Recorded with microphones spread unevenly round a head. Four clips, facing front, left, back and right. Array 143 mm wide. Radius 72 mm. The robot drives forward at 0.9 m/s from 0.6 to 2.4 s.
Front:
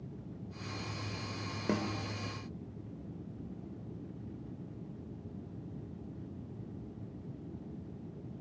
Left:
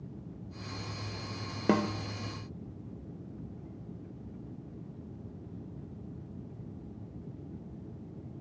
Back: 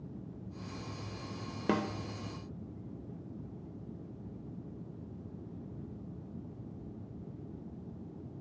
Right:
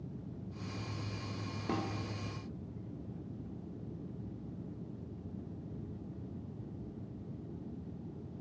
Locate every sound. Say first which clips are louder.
1.7 s a snare drum: left 9 dB, back 2 dB; 90° left, 1.3 m; by 1.9 s 100° left, 1.3 m